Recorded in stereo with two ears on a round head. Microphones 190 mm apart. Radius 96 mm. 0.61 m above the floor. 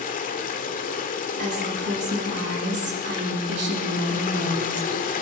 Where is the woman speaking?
55° right (ahead or behind), 7 m.